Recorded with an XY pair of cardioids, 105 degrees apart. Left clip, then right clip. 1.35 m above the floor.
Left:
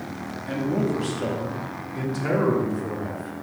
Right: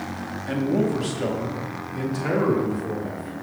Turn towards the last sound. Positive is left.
turn(degrees=10)